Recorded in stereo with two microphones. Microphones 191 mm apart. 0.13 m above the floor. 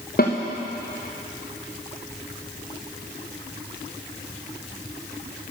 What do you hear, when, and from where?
0.2 s a snare drum: 50° left (ahead or behind), 2.5 m